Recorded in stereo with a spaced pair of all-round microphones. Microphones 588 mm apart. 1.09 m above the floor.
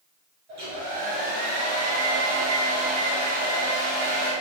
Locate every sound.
0.5 s a hair dryer: 80° right, 5 m